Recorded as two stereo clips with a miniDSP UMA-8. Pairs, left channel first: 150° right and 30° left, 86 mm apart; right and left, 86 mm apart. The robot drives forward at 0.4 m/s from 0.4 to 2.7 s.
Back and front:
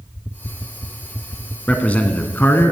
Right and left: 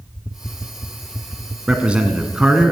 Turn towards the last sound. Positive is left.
turn(degrees=165)